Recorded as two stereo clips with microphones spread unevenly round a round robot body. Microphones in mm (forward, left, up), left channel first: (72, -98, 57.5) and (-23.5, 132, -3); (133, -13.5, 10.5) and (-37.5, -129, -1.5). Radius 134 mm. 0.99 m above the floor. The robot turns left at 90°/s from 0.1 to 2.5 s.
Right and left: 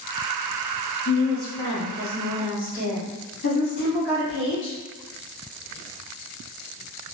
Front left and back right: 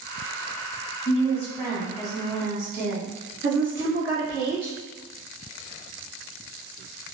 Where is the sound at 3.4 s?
105° right, 1.4 m.